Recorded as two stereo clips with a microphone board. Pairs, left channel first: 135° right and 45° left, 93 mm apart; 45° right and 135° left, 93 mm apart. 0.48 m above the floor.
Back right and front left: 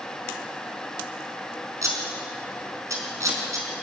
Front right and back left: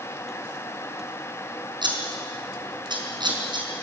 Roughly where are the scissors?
Left.